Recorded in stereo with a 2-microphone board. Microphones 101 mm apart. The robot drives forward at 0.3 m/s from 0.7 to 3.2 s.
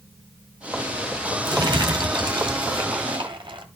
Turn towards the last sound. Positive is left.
turn(degrees=-55)  # may be behind; listen again after turning